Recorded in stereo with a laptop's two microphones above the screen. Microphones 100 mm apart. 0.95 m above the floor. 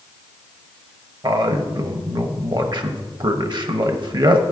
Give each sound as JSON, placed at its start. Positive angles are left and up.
{"t": 1.2, "sound": "a man speaking", "side_deg": -50, "distance_m": 0.8}